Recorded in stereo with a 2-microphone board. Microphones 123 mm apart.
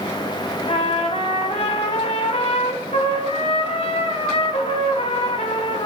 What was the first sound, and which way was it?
A trumpet, 55° left (ahead or behind).